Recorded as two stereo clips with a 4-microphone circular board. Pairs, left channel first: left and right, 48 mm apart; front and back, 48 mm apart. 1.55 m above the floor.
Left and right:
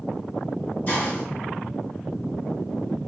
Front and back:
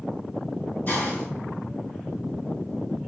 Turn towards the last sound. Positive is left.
turn(degrees=35)